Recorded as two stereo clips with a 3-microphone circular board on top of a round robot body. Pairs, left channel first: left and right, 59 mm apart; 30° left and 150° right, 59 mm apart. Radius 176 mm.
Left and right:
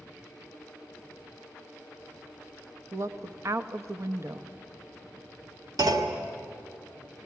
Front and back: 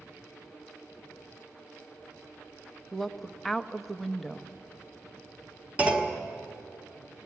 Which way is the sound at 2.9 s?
55° right.